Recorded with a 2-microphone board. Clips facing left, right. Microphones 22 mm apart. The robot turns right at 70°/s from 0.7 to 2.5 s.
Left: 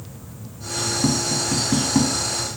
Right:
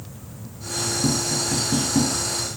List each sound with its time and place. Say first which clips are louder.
1.0 s tapping: left 2 dB; 40° left (ahead or behind), 1.2 m; by 2.1 s 35° left (ahead or behind), 1.2 m